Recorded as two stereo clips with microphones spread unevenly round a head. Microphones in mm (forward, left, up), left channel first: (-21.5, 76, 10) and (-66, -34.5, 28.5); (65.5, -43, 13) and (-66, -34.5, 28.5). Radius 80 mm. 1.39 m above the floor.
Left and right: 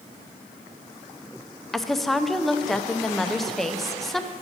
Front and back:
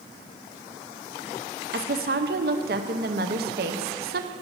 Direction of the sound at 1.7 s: 155° left.